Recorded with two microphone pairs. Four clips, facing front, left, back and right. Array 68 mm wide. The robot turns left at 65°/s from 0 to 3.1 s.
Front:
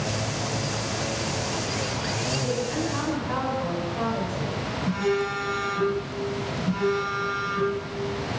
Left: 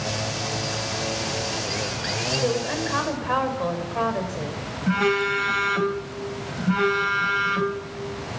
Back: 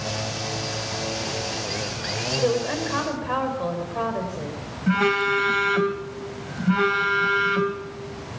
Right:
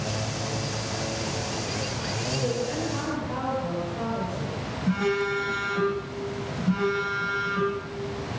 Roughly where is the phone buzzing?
Behind left.